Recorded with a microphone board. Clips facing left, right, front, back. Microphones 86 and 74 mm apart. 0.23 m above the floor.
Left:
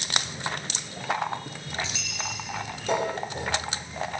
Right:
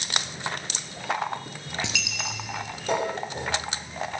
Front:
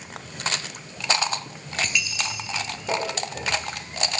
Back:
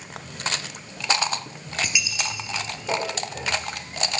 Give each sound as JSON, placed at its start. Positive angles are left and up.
{"t": 1.8, "sound": "a dropped coin", "azimuth_deg": -100, "distance_m": 1.4}